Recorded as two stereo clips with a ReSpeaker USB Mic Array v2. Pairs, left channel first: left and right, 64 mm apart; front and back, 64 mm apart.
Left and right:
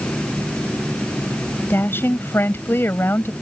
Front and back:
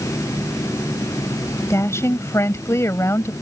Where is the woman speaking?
40° left.